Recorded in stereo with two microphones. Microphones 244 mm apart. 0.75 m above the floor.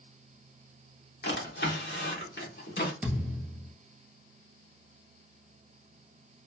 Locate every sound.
1.2 s a drawer: 45° left (ahead or behind), 1.0 m
3.0 s a thud: 5° right (ahead or behind), 1.4 m